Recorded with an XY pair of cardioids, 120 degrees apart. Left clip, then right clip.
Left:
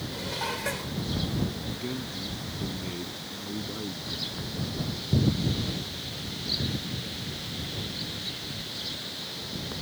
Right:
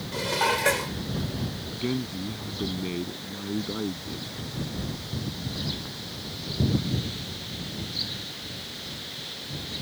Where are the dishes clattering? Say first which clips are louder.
Right 8 dB; 50° right.